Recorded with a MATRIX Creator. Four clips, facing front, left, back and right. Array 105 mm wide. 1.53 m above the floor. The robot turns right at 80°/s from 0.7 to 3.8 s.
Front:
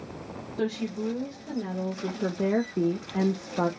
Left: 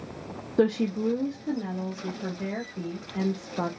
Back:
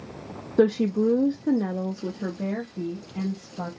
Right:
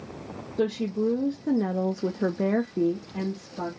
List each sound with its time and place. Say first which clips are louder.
0.6 s a woman speaking: left 2 dB, back 9 dB; 155° left, 0.5 m; by 3.7 s 35° left, 0.5 m